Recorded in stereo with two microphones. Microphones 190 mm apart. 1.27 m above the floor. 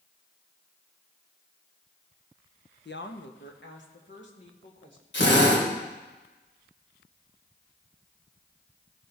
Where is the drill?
80° left, 3 m.